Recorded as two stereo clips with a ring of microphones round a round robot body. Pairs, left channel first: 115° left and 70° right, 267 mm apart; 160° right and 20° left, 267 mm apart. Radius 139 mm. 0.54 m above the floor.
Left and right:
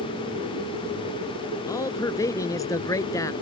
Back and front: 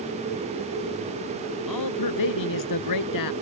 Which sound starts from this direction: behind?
A man speaking, at 1.7 s.